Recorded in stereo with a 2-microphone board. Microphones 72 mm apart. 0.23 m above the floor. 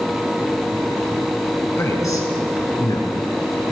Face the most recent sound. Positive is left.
turn(degrees=70)  # may be behind; listen again after turning